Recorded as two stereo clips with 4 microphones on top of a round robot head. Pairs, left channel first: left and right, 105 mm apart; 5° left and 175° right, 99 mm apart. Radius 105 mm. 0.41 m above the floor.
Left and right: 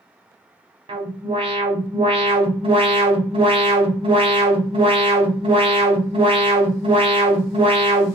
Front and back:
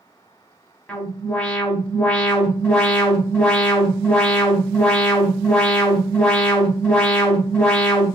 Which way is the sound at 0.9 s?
65° right.